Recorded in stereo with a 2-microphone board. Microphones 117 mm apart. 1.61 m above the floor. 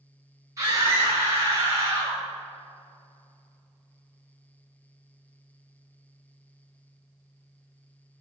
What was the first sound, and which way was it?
A scream, 30° right (ahead or behind).